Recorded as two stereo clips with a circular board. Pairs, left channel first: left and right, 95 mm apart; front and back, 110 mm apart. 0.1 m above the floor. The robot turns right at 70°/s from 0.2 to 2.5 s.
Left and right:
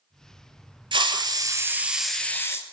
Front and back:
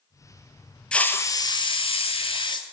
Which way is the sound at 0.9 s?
80° right.